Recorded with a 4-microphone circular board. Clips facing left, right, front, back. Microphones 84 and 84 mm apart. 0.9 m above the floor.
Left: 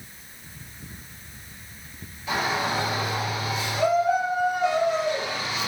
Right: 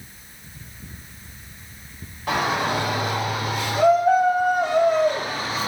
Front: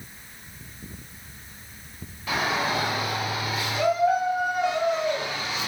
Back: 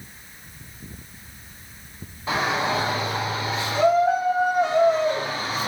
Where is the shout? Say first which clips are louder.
Right 3 dB, back 2 dB; 120° right, 4.5 m; by 5.7 s 135° right, 1.6 m.